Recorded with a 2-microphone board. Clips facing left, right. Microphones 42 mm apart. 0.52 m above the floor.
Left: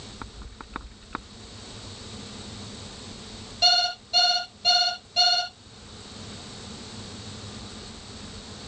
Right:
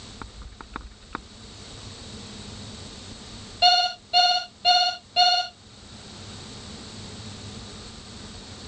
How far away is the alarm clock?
About 5 m.